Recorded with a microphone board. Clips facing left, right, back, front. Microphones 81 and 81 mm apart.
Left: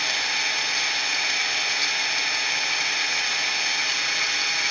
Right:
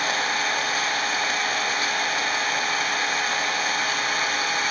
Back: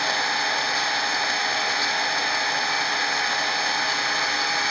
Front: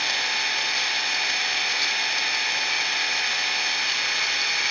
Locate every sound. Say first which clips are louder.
0.0 s an engine running: right 4 dB, back 4 dB; 130° right, 1.2 m